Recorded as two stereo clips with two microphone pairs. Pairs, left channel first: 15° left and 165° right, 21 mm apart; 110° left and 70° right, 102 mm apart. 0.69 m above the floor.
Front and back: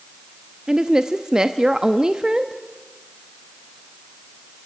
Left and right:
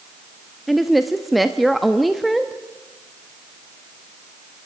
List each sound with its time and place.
0.7 s a woman speaking: 160° right, 0.8 m